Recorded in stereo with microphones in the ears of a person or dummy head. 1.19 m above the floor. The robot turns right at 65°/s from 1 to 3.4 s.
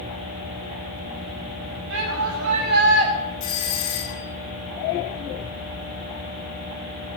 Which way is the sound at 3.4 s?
70° left (ahead or behind).